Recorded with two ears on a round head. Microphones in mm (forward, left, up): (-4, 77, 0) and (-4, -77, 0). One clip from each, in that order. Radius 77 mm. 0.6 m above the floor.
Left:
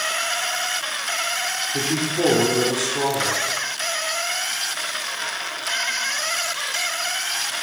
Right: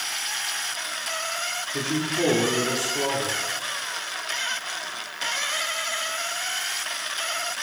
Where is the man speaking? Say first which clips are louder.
Left 3 dB; 5° left (ahead or behind), 1.6 m.